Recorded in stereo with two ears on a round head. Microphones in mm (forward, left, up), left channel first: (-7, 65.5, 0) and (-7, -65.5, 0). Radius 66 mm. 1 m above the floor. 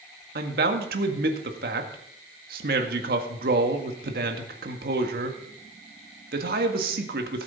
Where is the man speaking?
70° right (ahead or behind), 1.7 m.